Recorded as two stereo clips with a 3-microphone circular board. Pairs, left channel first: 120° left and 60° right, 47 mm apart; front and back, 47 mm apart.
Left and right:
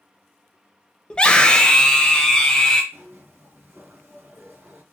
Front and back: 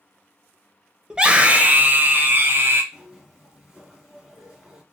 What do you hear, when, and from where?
1.1 s a scream: 140° left, 0.9 m; by 2.8 s 165° right, 1.5 m
2.9 s a zipper: 100° right, 2.0 m